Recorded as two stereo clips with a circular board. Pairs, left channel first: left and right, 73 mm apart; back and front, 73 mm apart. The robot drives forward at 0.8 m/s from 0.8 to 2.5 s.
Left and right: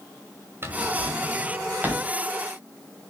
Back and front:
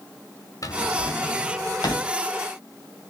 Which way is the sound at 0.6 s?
145° right.